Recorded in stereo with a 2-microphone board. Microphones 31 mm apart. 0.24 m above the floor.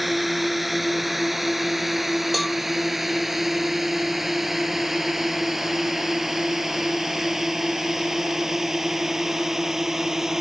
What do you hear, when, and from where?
0.0 s a drone: 5° right (ahead or behind); by 10.4 s 15° right (ahead or behind)
2.3 s a cowbell: centre (ahead or behind)